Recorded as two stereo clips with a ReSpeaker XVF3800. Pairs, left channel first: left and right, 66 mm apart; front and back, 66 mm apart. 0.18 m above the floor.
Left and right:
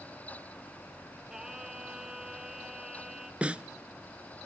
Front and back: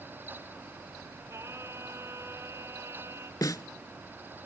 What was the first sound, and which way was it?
Singing, 170° right.